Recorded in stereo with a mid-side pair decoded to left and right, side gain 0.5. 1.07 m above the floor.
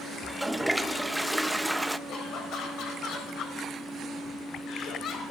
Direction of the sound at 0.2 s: 5° right.